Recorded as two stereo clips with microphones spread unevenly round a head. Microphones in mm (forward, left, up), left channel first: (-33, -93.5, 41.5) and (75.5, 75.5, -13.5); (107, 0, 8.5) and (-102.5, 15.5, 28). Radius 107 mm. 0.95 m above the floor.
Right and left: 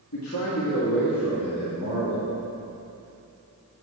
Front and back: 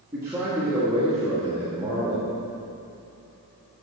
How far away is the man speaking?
About 1.6 m.